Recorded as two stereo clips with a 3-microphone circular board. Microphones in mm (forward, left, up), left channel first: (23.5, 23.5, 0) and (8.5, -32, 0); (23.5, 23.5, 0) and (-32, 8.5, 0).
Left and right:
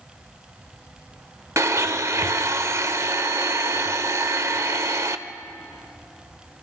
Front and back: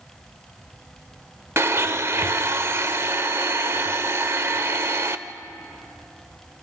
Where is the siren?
No siren in this recording.